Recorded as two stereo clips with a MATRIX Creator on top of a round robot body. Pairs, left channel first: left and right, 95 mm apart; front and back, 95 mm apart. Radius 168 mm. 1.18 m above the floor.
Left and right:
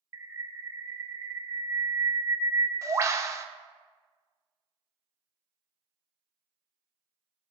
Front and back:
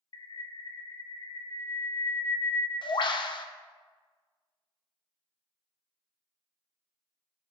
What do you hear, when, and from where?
0.1 s a bird: 30° right, 0.6 m